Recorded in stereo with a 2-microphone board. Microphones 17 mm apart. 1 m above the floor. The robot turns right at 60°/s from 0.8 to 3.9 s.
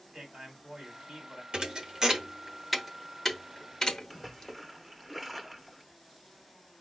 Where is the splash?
Centre (ahead or behind), 0.8 m.